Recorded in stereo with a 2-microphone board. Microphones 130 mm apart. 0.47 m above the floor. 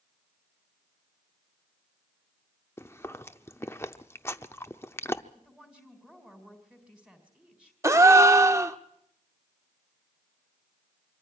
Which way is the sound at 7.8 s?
25° right (ahead or behind).